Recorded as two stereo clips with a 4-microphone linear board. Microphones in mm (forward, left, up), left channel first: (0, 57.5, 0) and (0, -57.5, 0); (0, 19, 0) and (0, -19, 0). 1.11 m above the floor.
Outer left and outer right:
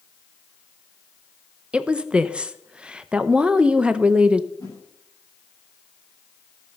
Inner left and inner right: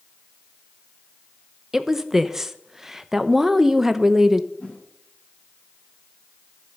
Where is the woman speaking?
10° right (ahead or behind), 0.7 m.